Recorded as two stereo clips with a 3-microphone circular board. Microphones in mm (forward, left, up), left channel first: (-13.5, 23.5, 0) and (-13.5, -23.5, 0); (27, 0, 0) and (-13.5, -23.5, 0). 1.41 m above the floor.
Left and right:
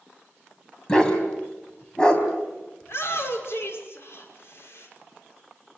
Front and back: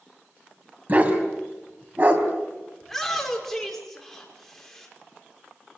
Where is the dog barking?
160° left, 4 m.